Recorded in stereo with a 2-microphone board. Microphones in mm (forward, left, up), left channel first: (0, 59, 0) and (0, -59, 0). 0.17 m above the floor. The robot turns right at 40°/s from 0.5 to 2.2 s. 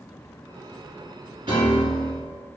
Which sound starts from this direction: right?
A piano, at 1.5 s.